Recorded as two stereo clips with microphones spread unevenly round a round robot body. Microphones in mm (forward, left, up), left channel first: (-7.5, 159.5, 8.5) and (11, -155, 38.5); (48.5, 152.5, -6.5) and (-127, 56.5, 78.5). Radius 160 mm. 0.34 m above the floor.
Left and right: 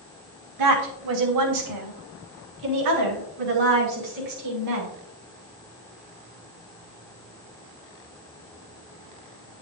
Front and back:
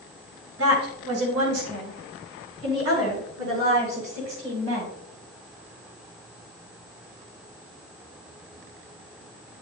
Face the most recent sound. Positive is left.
turn(degrees=-105)